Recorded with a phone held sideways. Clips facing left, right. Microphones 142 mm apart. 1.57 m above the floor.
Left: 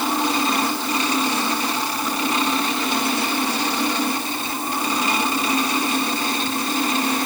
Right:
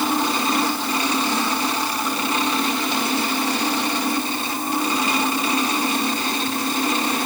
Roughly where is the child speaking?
I don't hear a child speaking.